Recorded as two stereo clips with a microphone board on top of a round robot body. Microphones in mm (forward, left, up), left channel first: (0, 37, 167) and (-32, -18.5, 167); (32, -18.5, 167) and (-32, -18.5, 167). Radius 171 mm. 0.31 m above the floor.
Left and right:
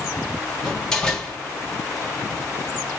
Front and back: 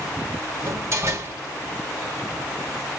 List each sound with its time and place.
0.6 s a door slam: 135° left, 2 m